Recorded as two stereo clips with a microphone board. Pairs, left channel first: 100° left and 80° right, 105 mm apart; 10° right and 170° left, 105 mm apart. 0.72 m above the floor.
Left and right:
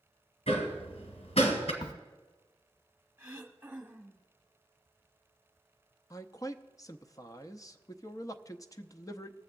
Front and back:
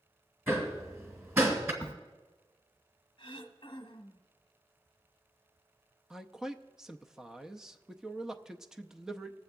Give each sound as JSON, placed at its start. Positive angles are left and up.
{"t": 0.5, "sound": "hammering", "azimuth_deg": 105, "distance_m": 1.8}
{"t": 1.8, "sound": "a crack", "azimuth_deg": 55, "distance_m": 0.7}
{"t": 3.2, "sound": "throat clearing", "azimuth_deg": -15, "distance_m": 1.1}
{"t": 6.1, "sound": "a man speaking", "azimuth_deg": 85, "distance_m": 0.6}